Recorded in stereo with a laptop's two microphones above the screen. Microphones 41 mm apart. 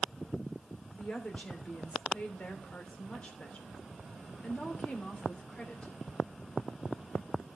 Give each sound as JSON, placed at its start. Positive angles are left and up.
{"t": 0.9, "sound": "a woman speaking", "side_deg": 35, "distance_m": 3.0}